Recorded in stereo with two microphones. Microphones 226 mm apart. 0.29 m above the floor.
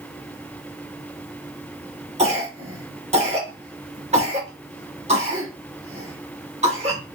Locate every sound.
2.2 s a cough: 30° right (ahead or behind), 2.5 m